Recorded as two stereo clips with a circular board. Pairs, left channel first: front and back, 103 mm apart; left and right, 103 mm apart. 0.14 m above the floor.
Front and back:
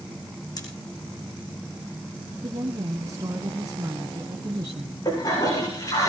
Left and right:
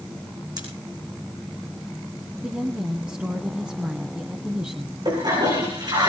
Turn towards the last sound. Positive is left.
turn(degrees=-50)